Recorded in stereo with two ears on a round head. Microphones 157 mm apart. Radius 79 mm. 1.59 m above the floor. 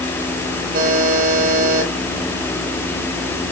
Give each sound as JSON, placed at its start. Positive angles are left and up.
{"t": 0.7, "sound": "a buzzer", "side_deg": -55, "distance_m": 8.0}